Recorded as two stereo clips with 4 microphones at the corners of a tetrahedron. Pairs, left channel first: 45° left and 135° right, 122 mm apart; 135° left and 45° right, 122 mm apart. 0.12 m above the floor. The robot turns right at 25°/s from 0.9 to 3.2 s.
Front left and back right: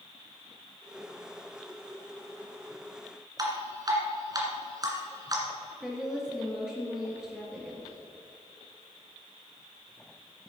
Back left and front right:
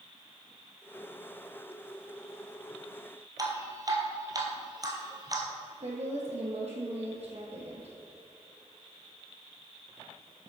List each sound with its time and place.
3.4 s dripping: 90° right, 1.7 m
5.8 s a woman speaking: 50° right, 3 m